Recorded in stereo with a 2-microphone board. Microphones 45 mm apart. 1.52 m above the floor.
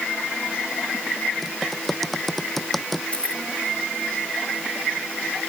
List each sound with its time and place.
1.4 s typing on a keyboard: centre (ahead or behind)
3.1 s keys jangling: 25° left (ahead or behind)